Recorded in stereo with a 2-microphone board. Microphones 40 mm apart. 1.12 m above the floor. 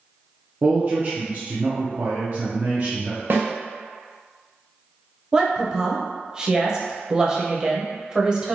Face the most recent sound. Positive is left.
turn(degrees=-20)  # may be behind; listen again after turning